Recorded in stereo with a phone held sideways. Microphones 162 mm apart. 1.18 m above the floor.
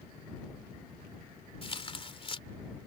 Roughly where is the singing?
I don't hear singing.